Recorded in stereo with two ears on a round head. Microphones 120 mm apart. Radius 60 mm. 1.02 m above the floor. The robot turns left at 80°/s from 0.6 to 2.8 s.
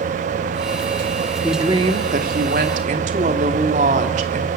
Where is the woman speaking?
10° right, 2.5 m; by 4.5 s 120° right, 2.5 m.